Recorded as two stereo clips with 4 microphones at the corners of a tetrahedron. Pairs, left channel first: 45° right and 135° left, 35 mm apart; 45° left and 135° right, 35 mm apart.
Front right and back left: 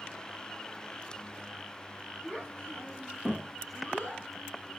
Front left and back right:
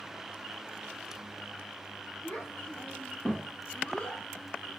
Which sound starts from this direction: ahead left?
A child speaking, at 2.2 s.